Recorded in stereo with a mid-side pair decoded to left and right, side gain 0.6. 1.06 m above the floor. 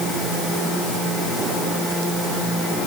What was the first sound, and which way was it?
Only background noise.